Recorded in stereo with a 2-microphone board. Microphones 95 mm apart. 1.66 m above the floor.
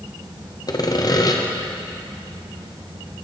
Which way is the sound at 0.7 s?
40° left (ahead or behind).